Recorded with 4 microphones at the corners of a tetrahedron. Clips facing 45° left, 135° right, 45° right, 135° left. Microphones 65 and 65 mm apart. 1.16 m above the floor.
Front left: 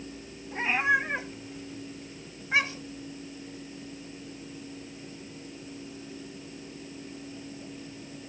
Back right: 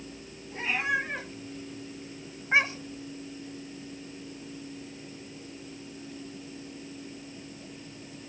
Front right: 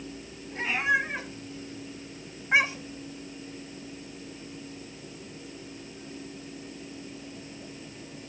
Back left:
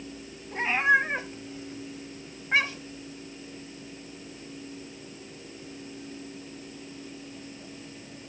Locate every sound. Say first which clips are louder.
0.5 s a cat meowing: front left 4 dB, back left 3 dB; 95° left, 1.6 m; by 3.0 s 105° right, 1.4 m